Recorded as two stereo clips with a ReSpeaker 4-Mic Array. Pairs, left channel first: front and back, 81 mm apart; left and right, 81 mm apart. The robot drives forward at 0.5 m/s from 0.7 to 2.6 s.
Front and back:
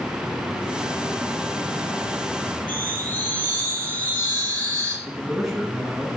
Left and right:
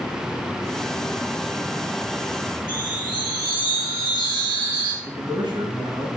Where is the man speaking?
90° right, 3 m.